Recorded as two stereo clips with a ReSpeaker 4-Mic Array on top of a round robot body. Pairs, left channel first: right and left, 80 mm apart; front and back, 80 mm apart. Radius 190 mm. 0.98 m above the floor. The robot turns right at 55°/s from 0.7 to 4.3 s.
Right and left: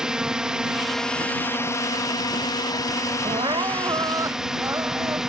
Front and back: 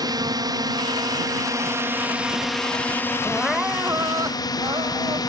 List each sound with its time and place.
0.0 s a drone: 170° left; by 5.3 s 10° left
3.2 s crying: 85° left; by 5.2 s 145° left